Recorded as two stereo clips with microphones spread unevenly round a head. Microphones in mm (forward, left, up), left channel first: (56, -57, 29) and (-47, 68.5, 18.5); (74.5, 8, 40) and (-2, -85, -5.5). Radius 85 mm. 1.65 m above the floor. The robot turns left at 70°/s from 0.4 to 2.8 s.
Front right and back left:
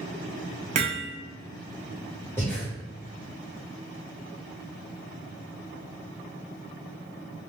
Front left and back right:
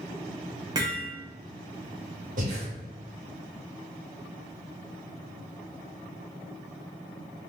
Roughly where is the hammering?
Behind left.